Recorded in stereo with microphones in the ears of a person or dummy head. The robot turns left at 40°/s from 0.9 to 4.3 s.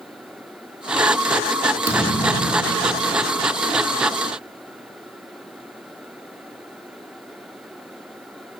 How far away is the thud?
About 4.5 m.